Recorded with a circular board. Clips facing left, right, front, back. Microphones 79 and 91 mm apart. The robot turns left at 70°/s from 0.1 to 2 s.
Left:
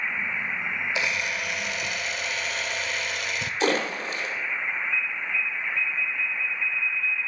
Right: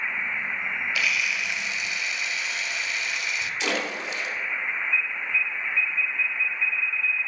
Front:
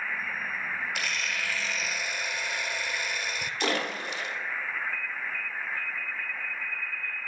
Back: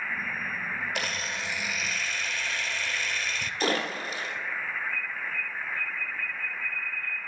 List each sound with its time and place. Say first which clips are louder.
0.9 s a camera shutter: right 1 dB, even; 150° left, 0.6 m; by 3.5 s 75° left, 0.6 m
3.6 s a splash: left 5 dB, back 1 dB; 130° left, 2 m
4.9 s an alarm: right 1 dB, back 1 dB; straight behind, 4 m